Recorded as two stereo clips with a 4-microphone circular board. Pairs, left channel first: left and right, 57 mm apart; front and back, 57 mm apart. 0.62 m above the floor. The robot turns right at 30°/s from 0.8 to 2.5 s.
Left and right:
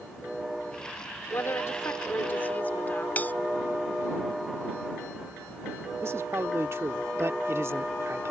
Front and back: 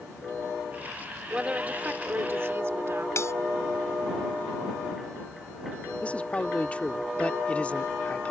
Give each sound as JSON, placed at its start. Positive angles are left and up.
{"t": 1.3, "sound": "a woman speaking", "azimuth_deg": 105}
{"t": 3.2, "sound": "a bell", "azimuth_deg": 30}
{"t": 6.0, "sound": "a man speaking", "azimuth_deg": -65}